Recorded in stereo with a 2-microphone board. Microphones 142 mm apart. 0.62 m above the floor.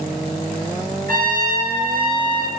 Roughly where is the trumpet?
Right.